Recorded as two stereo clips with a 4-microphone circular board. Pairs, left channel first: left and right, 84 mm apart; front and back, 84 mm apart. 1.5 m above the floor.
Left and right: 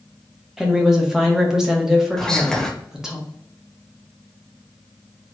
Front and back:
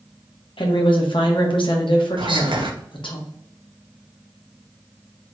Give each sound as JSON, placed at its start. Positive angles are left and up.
{"t": 0.6, "sound": "a woman speaking", "azimuth_deg": -5, "distance_m": 1.2}
{"t": 2.2, "sound": "whispering", "azimuth_deg": 175, "distance_m": 1.0}